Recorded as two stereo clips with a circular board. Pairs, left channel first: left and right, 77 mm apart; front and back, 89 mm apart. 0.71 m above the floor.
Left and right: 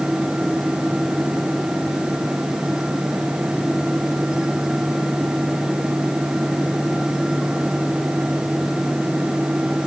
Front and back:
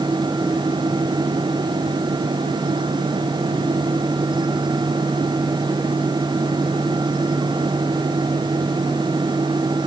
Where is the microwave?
I don't hear a microwave.